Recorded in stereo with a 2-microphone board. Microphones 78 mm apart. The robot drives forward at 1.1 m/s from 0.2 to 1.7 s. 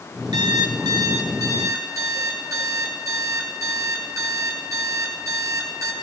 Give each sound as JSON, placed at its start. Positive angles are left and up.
{"t": 0.3, "sound": "an alarm clock", "side_deg": -75, "distance_m": 3.0}